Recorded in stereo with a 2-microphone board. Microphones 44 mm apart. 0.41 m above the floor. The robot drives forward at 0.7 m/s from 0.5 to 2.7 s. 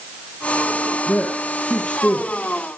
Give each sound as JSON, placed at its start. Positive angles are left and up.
{"t": 1.1, "sound": "a man speaking", "side_deg": 25, "distance_m": 6.5}